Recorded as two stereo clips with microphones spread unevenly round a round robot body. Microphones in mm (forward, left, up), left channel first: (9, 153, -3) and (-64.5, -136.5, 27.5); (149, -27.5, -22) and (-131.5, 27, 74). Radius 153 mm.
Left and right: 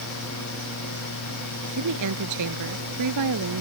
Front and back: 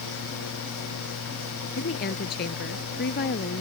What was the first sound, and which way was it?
A woman speaking, 70° right.